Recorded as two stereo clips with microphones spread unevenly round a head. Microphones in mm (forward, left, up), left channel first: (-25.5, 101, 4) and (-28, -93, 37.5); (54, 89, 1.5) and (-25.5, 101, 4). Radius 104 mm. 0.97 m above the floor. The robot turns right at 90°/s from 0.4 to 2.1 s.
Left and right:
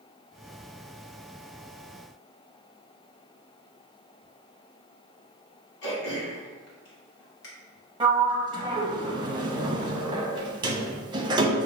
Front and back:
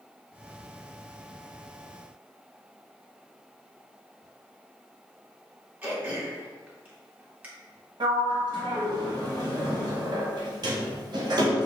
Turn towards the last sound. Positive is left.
turn(degrees=-160)